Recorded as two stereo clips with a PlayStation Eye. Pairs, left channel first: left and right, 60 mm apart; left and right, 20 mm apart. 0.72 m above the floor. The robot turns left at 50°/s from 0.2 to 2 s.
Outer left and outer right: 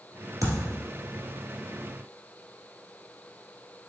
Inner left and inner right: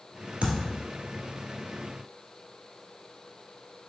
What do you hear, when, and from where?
0.4 s a thud: 70° right (ahead or behind), 1.5 m; by 0.8 s 60° right (ahead or behind), 1.5 m